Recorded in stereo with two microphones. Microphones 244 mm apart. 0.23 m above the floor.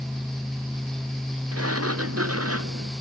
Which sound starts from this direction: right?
A sliding door, at 1.5 s.